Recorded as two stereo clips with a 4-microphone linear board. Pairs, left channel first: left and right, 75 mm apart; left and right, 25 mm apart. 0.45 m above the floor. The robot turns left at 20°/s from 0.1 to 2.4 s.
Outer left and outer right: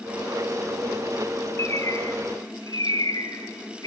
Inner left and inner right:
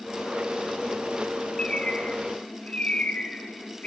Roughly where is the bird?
Left.